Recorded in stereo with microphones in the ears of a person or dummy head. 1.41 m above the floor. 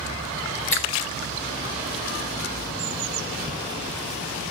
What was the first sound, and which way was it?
A finger snap, 10° left (ahead or behind).